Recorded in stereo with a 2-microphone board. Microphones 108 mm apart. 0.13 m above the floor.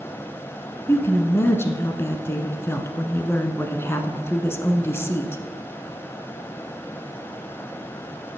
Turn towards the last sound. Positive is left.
turn(degrees=20)  # may be behind; listen again after turning